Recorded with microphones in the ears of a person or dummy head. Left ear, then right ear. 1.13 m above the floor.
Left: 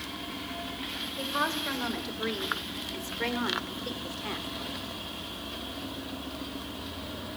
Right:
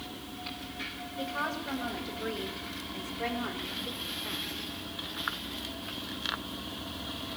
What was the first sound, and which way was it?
A woman speaking, 70° left (ahead or behind).